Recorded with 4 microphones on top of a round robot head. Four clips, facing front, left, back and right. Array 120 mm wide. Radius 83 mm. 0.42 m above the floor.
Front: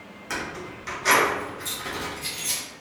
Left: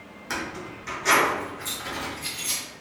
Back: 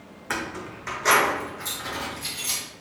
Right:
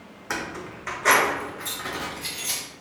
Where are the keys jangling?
140° right, 1.0 m; by 2.6 s 100° right, 2 m.